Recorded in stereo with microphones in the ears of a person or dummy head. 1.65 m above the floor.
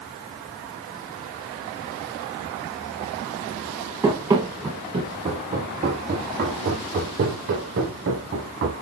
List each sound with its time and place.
4.0 s running footsteps: 10° right (ahead or behind), 2 m; by 8.7 s 65° right (ahead or behind), 4 m